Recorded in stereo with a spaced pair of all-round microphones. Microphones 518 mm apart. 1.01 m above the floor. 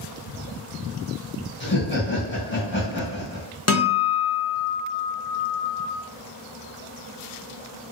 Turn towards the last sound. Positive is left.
turn(degrees=30)  # may be behind; listen again after turning